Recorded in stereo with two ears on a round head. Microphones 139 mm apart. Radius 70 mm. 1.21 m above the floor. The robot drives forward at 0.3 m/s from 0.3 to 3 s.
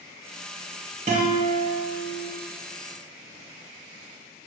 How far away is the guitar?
About 0.9 m.